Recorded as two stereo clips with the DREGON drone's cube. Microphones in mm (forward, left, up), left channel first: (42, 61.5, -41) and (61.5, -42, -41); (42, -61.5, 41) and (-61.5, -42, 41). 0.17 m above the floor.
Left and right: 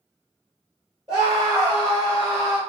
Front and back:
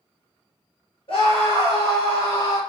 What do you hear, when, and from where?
1.1 s a scream: 35° right, 3 m; by 2.6 s 45° right, 4 m